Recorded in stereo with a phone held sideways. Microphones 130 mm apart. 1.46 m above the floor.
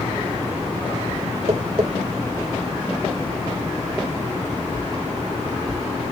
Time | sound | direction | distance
1.5 | tapping | 50° right (ahead or behind) | 2 m